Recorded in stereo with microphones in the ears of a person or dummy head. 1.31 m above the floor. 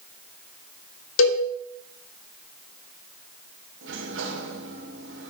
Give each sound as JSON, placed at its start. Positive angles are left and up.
{"t": 1.2, "sound": "a cowbell", "side_deg": 80, "distance_m": 1.8}
{"t": 3.8, "sound": "a sliding door", "side_deg": -70, "distance_m": 2.0}